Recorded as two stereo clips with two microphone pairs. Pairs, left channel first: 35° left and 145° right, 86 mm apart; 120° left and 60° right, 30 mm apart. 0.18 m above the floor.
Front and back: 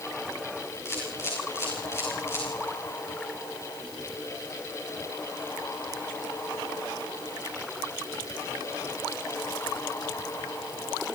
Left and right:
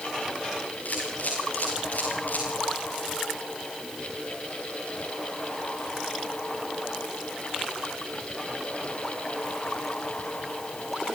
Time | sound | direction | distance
0.8 | a camera shutter | 95° left | 7 m